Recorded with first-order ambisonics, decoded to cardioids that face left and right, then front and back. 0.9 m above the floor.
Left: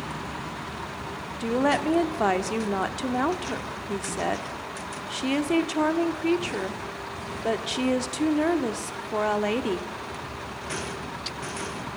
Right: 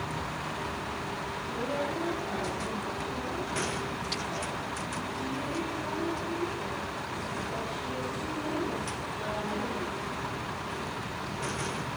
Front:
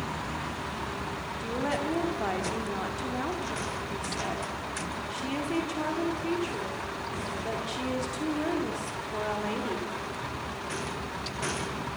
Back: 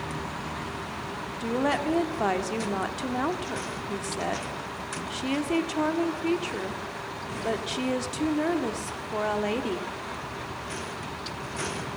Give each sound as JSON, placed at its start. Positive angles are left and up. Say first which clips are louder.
{"t": 1.4, "sound": "a woman speaking", "louder": "left 11 dB, back 5 dB", "azimuth_deg": 110, "distance_m": 1.7}